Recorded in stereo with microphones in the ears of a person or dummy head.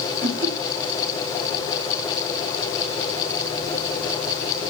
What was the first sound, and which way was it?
Laughter, 55° right (ahead or behind).